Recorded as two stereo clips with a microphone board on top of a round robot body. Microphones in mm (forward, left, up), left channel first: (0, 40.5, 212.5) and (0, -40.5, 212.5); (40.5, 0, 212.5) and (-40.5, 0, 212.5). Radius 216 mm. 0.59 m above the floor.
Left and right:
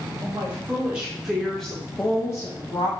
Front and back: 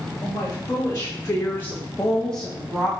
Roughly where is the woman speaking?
Ahead right.